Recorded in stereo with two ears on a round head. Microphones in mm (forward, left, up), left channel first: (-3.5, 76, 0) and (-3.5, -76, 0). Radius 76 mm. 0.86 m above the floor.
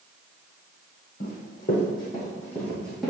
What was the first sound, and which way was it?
Running footsteps, 50° left (ahead or behind).